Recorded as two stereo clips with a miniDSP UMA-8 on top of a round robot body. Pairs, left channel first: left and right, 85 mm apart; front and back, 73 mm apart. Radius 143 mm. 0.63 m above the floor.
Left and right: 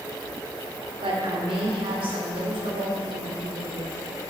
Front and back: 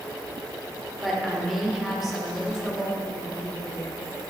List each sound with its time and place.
1.0 s a woman speaking: 90° right, 2 m